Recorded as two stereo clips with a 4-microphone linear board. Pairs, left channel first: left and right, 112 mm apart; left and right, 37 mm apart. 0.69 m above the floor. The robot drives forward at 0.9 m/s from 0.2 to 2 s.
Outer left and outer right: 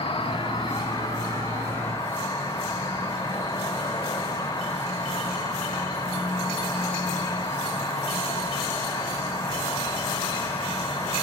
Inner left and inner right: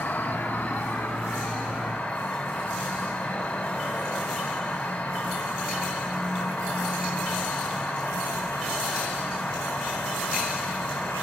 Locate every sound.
0.0 s an insect: 55° left (ahead or behind), 1.1 m; by 11.2 s 25° left (ahead or behind), 2.5 m